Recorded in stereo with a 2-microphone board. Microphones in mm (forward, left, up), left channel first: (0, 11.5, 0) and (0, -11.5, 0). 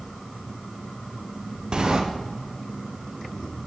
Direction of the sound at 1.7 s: 35° right (ahead or behind).